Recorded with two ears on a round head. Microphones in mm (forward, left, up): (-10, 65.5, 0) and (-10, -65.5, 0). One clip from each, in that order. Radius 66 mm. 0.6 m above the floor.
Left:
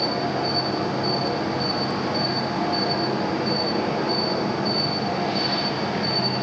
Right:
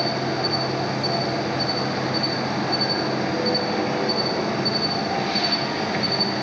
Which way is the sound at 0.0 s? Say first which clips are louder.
Even; 60° right (ahead or behind).